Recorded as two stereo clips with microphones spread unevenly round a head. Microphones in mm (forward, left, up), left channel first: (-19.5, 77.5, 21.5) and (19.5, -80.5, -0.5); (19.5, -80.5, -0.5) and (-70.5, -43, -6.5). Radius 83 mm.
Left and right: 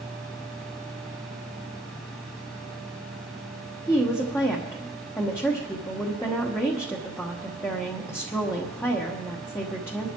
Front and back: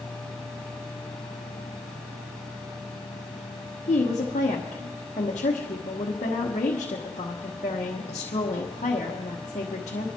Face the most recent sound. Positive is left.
turn(degrees=25)